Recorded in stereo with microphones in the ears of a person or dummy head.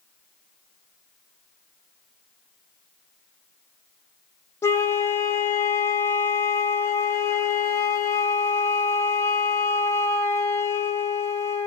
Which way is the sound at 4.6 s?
20° left (ahead or behind).